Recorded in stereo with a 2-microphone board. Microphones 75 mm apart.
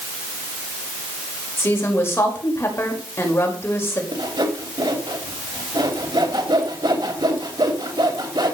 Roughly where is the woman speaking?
Left.